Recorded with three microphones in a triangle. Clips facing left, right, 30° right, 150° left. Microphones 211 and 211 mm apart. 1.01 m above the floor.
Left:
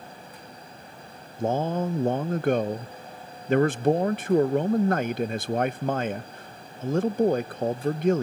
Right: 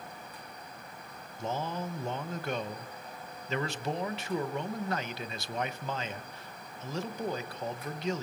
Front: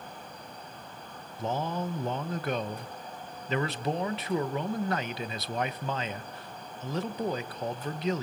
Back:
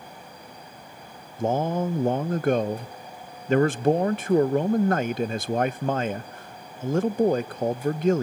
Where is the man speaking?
120° left, 0.6 m.